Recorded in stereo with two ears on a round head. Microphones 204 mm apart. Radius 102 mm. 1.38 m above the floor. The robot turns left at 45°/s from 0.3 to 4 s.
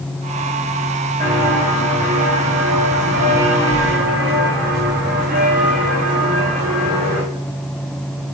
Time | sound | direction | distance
1.2 | footsteps | 5° left (ahead or behind) | 6 m